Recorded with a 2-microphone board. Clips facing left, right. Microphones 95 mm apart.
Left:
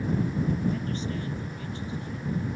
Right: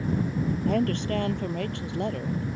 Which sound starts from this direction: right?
A woman speaking, at 0.7 s.